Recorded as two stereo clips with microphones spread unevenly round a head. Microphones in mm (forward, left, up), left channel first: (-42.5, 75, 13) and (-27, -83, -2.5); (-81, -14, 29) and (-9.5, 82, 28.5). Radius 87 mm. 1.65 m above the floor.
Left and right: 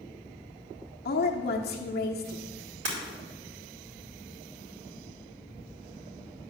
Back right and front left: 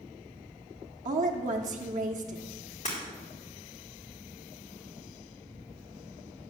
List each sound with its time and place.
1.1 s a woman speaking: 60° left, 1.2 m
2.9 s breaking glass: 60° right, 3.5 m